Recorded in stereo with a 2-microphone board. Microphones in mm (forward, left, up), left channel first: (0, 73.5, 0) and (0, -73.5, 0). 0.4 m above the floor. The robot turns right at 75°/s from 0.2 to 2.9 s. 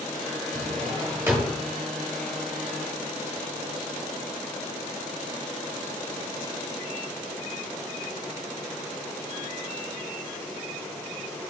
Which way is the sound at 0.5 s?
80° right.